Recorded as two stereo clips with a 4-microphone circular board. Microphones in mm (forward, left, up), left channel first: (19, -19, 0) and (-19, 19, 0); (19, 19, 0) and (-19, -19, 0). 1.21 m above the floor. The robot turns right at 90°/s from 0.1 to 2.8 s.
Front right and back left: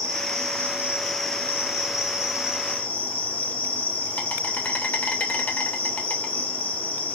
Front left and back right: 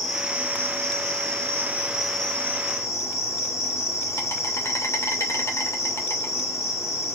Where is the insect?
135° left, 2.5 m; by 7.2 s 20° left, 2.5 m.